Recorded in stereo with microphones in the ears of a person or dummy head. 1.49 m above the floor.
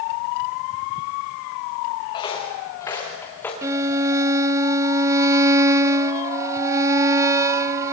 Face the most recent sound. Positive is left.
turn(degrees=-15)  # may be behind; listen again after turning